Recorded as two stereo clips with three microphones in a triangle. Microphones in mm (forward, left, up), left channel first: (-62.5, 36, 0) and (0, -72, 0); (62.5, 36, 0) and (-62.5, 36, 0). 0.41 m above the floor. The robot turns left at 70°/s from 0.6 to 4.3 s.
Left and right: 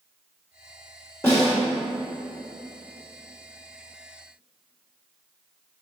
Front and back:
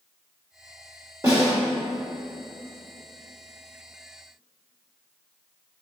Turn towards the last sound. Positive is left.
turn(degrees=-55)